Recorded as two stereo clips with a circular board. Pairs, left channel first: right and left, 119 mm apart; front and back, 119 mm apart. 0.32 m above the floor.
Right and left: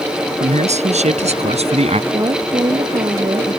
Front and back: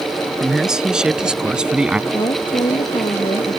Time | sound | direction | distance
0.4 | a man speaking | 95° left | ?
2.1 | a woman speaking | 40° left | ?